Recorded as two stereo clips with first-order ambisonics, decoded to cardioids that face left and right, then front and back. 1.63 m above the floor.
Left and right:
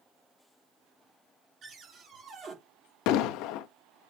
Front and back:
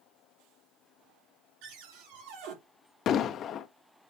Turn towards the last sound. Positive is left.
turn(degrees=60)